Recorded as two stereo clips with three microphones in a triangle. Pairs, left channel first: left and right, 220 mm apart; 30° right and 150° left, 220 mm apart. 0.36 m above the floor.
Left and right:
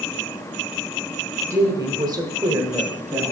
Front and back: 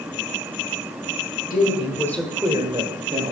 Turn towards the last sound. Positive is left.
turn(degrees=-170)